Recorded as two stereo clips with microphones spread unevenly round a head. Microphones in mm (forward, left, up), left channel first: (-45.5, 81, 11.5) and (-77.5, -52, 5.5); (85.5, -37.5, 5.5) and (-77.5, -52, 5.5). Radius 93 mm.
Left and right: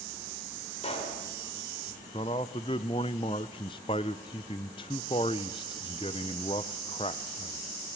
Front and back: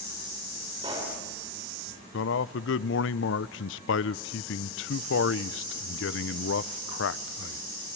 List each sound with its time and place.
0.8 s a pop: 115° left, 5 m
2.1 s a man speaking: 10° left, 0.6 m